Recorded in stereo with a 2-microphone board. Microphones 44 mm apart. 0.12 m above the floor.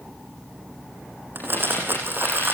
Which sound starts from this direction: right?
Crumpling, at 1.4 s.